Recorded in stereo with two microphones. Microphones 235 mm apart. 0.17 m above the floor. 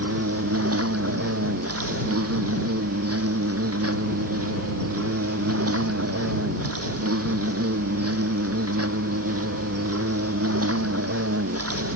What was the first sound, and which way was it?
An insect, 85° right.